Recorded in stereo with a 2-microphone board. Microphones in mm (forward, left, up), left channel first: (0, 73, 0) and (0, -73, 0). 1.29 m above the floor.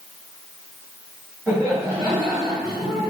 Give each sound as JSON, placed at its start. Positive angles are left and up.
{"t": 1.5, "sound": "laughter", "side_deg": -20, "distance_m": 2.5}